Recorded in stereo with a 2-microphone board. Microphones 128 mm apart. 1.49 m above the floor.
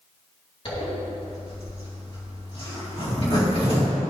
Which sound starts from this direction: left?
A zipper, at 0.7 s.